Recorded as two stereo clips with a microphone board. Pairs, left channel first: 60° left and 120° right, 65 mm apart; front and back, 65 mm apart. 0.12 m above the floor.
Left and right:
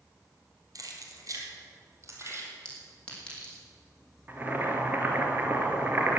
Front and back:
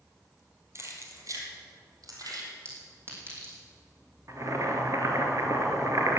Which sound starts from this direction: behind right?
Keys jangling, at 0.8 s.